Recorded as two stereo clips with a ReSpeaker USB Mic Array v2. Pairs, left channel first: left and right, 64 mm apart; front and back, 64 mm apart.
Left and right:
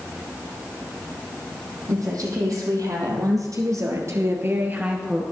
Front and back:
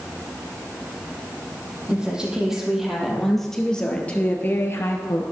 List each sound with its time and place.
1.9 s a woman speaking: 105° right, 3.5 m; by 5.2 s 15° right, 1.7 m